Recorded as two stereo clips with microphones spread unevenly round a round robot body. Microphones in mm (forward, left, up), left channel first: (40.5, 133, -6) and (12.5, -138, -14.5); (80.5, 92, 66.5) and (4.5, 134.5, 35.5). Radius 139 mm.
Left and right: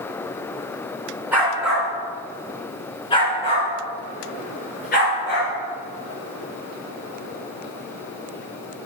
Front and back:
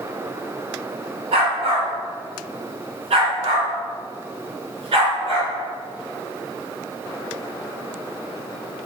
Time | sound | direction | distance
1.3 | a dog barking | straight behind | 2.5 m